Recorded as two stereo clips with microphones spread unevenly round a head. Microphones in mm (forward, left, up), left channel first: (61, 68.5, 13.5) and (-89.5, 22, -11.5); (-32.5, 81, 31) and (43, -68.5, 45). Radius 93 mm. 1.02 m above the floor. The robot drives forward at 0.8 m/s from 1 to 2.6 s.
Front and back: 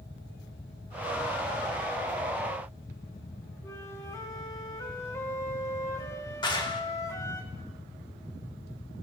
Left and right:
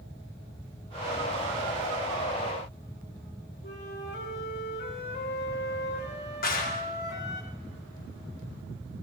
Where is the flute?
90° left, 4 m.